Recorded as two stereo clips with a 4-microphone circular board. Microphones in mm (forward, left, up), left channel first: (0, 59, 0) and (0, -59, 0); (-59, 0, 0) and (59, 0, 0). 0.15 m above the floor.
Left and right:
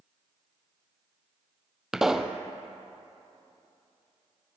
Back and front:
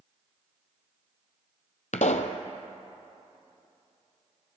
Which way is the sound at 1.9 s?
175° right.